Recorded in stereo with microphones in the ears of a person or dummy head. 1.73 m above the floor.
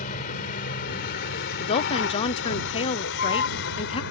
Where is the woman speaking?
35° left (ahead or behind).